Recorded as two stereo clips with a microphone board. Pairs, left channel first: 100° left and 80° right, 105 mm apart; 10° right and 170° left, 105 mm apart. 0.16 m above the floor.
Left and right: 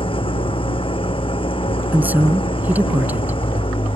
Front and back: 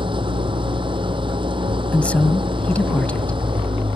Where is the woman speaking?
60° right.